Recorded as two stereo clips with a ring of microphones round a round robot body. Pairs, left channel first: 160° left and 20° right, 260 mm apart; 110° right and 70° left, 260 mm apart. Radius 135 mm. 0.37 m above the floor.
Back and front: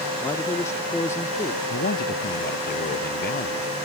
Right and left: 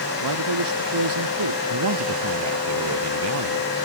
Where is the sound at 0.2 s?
80° left.